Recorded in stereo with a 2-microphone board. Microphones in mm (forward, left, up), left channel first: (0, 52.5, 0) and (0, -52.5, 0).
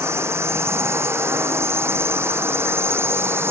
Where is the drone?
25° right (ahead or behind).